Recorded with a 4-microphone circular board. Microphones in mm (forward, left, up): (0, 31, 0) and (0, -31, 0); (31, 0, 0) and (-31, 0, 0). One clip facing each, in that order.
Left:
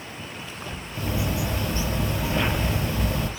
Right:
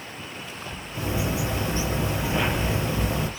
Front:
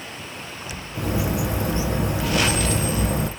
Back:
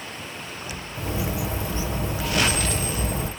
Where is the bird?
25° right, 2.5 m.